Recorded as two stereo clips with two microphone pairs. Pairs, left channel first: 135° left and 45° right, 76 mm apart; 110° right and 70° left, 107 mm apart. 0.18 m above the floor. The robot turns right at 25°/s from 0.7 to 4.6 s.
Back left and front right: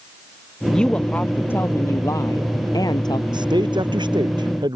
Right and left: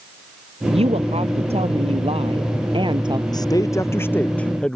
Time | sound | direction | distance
0.7 | a woman speaking | 55° left | ?
3.3 | a man speaking | 60° right | ?